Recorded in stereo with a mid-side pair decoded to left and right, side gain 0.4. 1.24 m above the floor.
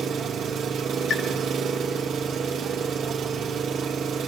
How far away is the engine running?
About 1.6 m.